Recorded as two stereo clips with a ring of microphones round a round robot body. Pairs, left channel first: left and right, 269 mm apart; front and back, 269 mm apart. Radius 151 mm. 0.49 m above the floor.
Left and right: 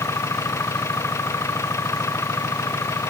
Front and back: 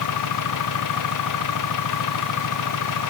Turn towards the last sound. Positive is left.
turn(degrees=10)